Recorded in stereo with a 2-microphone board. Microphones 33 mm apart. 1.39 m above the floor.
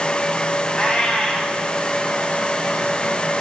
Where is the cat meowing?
20° left (ahead or behind), 1.3 m.